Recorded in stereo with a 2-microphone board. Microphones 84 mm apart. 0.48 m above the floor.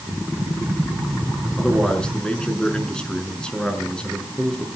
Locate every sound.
1.6 s a man speaking: 10° left (ahead or behind), 5.5 m